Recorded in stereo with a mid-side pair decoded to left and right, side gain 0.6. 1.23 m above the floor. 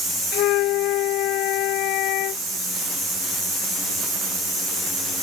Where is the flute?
70° left.